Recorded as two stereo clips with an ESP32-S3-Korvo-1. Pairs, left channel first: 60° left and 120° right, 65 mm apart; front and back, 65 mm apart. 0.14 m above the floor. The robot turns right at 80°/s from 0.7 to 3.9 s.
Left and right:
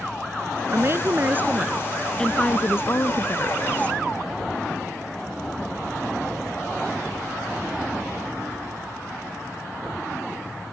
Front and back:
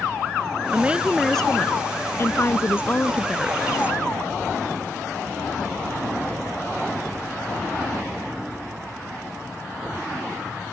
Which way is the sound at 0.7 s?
130° right.